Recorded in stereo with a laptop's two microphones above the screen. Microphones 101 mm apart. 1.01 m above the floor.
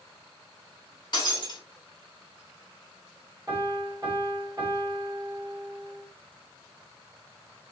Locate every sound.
1.1 s breaking glass: 45° left (ahead or behind), 1.4 m
3.5 s a piano: 35° right (ahead or behind), 2.5 m